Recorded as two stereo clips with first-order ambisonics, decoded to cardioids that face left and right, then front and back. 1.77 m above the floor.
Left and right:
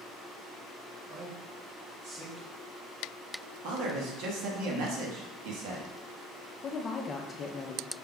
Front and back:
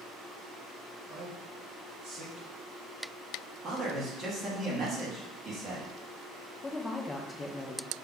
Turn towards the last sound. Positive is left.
turn(degrees=65)